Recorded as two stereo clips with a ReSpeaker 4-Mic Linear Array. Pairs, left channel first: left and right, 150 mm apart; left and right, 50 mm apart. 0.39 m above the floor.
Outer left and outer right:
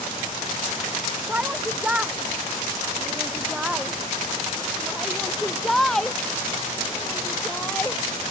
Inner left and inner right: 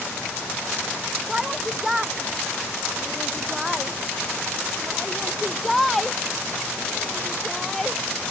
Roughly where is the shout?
Centre.